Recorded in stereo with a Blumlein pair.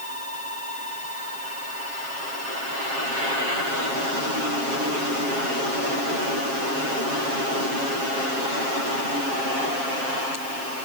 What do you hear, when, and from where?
Only background noise.